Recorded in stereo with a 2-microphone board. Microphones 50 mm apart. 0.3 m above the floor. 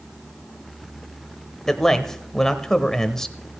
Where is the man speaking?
10° left (ahead or behind), 0.9 m.